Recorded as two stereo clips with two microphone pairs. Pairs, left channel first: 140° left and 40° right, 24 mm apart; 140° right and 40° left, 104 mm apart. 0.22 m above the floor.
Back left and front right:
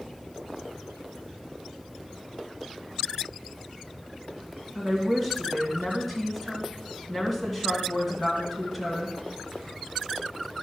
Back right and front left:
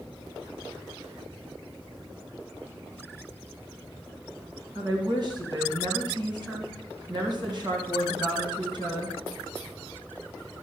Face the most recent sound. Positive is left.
turn(degrees=60)